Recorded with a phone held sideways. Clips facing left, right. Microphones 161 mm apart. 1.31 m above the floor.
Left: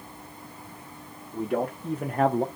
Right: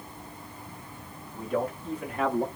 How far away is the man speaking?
About 1.5 m.